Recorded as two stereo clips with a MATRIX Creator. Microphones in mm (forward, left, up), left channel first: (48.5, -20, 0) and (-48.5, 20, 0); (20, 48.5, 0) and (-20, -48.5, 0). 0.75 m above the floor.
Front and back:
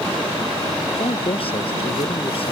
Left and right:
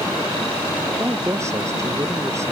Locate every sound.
0.9 s a man speaking: 50° right